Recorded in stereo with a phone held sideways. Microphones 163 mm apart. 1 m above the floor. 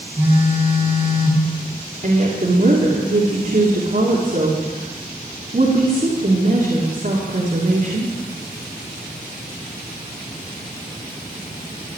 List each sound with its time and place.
0.2 s a phone buzzing: 10° right (ahead or behind), 4.5 m
2.0 s a woman speaking: 55° right (ahead or behind), 2.5 m